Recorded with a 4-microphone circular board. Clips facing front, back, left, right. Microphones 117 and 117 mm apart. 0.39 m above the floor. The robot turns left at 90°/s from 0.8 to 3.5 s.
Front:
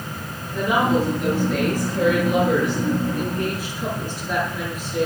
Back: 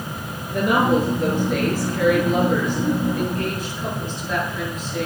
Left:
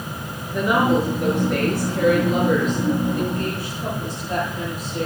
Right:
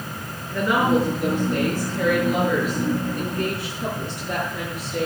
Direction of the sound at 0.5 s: 165° left.